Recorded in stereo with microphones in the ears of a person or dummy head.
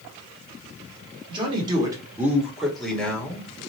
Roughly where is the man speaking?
Right.